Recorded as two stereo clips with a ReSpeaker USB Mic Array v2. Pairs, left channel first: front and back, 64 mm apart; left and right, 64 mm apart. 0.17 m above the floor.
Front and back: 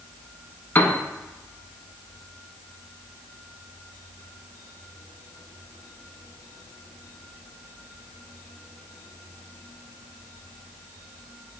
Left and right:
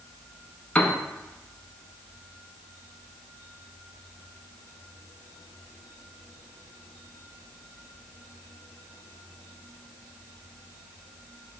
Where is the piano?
30° left, 0.5 m.